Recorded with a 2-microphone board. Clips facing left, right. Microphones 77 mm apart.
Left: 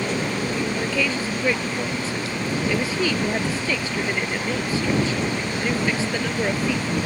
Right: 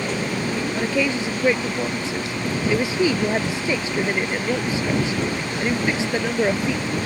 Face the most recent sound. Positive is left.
turn(degrees=-20)  # may be behind; listen again after turning